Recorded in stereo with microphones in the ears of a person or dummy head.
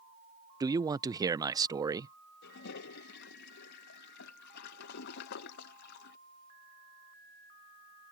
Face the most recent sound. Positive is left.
turn(degrees=65)  # may be behind; listen again after turning